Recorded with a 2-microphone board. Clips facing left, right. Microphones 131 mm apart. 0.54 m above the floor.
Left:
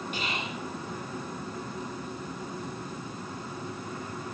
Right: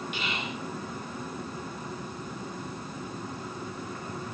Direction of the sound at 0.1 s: 40° left (ahead or behind).